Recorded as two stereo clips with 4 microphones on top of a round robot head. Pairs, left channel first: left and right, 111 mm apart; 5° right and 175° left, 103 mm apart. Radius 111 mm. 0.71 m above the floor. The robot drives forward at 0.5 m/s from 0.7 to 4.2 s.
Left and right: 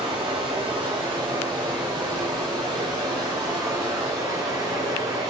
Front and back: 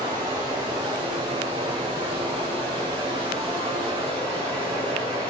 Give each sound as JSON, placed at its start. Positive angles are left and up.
{"t": 0.0, "sound": "running water", "azimuth_deg": -130, "distance_m": 4.5}